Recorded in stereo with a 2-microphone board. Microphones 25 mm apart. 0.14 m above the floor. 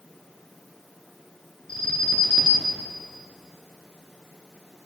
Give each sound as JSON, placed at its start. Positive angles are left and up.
{"t": 1.7, "sound": "an alarm", "side_deg": 45, "distance_m": 1.4}